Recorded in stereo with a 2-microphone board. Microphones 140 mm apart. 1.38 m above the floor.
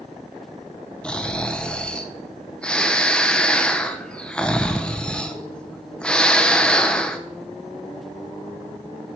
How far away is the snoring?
About 0.6 m.